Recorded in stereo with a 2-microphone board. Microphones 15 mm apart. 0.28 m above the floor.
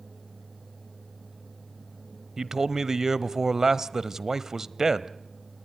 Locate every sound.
2.4 s a man speaking: 35° right (ahead or behind), 1.0 m